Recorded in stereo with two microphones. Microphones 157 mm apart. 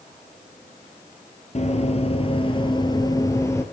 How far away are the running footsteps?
About 2.5 m.